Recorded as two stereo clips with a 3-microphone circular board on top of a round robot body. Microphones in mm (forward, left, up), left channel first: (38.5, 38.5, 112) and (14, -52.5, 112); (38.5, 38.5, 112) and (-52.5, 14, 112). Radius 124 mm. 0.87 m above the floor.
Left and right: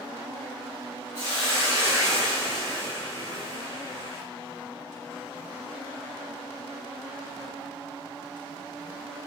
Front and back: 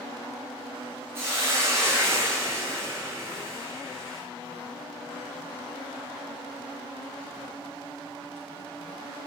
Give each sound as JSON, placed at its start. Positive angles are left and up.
{"t": 1.1, "sound": "a hiss", "azimuth_deg": 130, "distance_m": 0.6}